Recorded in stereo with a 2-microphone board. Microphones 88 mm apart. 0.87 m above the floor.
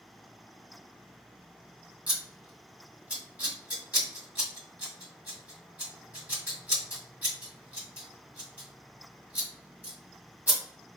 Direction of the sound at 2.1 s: 20° right (ahead or behind).